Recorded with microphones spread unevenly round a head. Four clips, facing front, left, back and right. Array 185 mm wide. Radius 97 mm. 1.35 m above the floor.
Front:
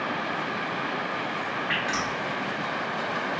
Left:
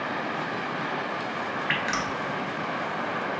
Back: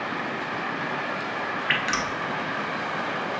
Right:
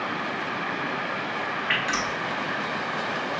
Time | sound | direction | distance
1.7 | dripping | 170° left | 0.8 m